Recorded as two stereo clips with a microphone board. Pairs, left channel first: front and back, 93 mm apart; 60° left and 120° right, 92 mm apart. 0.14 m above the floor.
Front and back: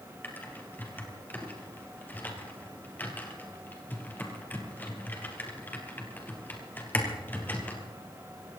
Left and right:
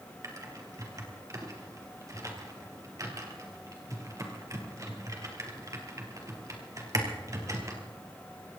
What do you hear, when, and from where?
0.2 s typing on a keyboard: 70° right, 3 m